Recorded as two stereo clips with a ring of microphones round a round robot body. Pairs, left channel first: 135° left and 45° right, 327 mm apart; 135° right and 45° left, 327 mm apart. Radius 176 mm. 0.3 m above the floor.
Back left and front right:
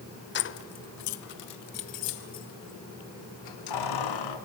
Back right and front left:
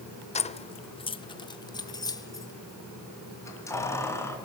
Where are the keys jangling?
165° left, 0.9 m; by 4.4 s 145° left, 3.5 m.